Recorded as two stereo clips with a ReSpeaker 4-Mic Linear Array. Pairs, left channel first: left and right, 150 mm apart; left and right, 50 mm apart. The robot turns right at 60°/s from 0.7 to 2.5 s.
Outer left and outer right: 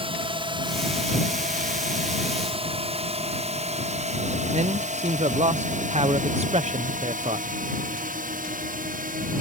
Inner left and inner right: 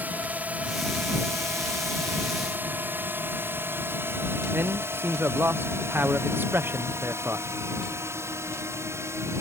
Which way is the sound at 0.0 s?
40° right (ahead or behind).